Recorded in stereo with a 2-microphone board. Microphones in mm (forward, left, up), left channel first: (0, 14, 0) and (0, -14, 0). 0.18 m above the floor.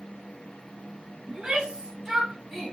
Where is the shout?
20° right (ahead or behind), 1.5 m; by 2.8 s 15° left (ahead or behind), 1.2 m.